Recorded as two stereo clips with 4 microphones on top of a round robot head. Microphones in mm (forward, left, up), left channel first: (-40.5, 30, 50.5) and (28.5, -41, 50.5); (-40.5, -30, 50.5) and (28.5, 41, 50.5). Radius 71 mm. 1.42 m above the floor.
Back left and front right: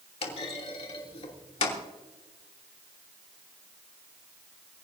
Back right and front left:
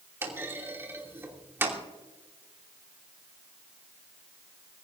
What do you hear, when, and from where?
0.2 s a clunk: 110° left, 3 m